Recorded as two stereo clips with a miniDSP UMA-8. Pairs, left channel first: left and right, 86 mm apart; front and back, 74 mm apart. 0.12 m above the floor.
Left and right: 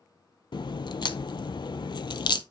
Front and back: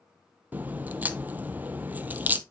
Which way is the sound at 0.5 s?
115° left.